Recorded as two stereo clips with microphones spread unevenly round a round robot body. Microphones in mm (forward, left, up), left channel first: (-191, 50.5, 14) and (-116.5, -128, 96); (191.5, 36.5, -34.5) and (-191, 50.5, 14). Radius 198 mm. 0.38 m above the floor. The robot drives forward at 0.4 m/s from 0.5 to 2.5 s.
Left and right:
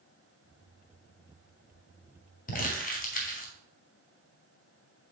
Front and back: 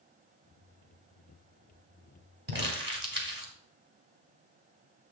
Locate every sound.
2.5 s crumpling: 110° left, 2 m